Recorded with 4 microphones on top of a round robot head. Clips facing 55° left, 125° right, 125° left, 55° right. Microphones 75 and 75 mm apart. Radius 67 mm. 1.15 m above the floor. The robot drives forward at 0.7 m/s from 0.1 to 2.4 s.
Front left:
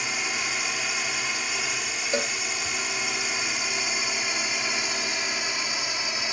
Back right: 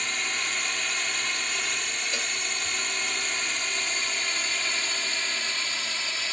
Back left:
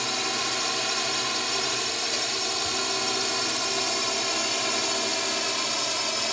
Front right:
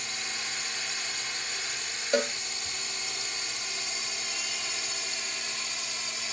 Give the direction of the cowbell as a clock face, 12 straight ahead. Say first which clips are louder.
Front left 10 dB, front right 6 dB; 12 o'clock.